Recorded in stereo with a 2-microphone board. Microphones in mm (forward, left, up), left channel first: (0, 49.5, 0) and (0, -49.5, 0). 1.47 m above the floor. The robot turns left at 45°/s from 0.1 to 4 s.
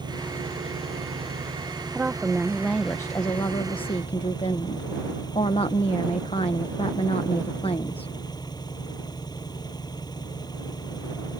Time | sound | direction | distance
0.0 | an engine running | 50° right | ?
1.9 | a woman speaking | 160° right | ?